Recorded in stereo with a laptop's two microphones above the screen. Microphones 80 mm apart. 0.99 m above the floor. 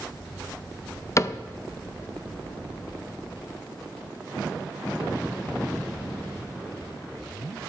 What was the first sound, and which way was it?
A cupboard door, 40° left (ahead or behind).